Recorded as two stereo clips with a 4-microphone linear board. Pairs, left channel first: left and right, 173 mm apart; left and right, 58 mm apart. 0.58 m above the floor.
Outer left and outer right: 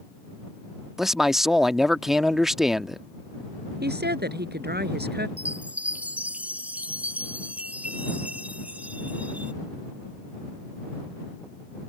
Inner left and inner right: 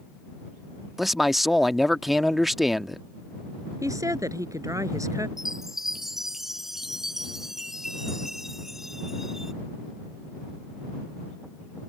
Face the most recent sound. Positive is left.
turn(degrees=-5)  # may be behind; listen again after turning